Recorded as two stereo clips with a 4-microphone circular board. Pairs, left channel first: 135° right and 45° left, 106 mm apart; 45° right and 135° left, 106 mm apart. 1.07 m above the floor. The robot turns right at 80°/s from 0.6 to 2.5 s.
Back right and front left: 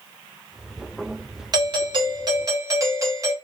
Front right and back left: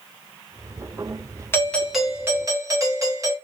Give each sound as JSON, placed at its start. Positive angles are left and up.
{"t": 1.5, "sound": "a doorbell", "azimuth_deg": 10, "distance_m": 1.2}